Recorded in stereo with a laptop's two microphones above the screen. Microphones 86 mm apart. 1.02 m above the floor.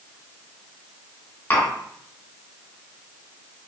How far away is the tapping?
About 1.7 m.